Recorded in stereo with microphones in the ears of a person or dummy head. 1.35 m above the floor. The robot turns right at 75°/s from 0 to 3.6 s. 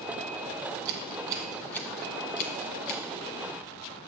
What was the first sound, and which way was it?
Scissors, 45° right (ahead or behind).